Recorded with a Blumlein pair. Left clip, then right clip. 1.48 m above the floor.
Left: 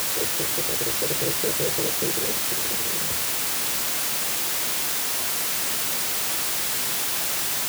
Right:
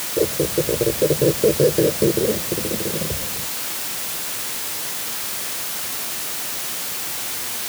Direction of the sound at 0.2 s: 55° right.